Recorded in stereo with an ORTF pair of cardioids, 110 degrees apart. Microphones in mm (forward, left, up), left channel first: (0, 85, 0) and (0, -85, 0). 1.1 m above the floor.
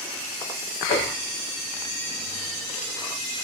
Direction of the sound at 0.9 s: 60° left.